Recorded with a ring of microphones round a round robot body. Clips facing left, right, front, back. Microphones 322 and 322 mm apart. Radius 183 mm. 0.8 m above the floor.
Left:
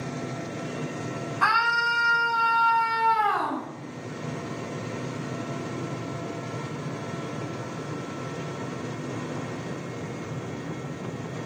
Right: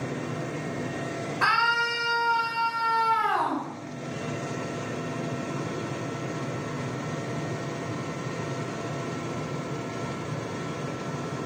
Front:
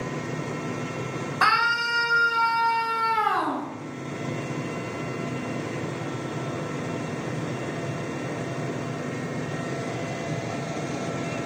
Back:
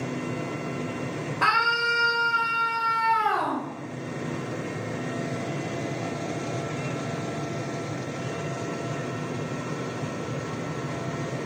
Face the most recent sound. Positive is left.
turn(degrees=45)